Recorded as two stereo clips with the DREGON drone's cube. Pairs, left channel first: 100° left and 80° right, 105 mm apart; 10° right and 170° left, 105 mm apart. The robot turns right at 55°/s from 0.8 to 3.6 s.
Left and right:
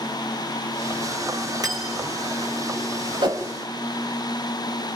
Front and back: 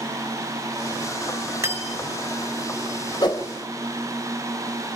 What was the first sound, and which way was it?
Cutlery clinking, 130° right.